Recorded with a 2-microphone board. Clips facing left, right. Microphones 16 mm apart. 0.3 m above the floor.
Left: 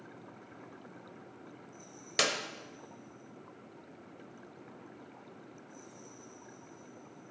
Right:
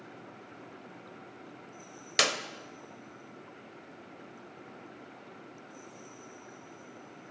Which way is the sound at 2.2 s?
20° right (ahead or behind).